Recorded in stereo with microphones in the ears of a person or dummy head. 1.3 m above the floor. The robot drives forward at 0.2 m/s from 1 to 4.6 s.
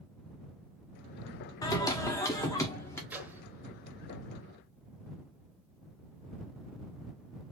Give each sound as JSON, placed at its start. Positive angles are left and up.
{"t": 1.6, "sound": "singing", "side_deg": 20, "distance_m": 0.6}
{"t": 3.1, "sound": "a microwave", "side_deg": -10, "distance_m": 0.7}